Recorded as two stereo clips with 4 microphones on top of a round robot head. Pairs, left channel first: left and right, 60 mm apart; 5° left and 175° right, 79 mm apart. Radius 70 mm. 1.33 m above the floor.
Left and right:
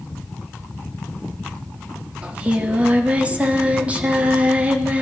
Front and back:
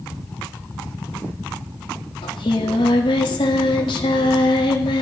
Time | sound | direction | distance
2.2 | singing | 25° right | 2.0 m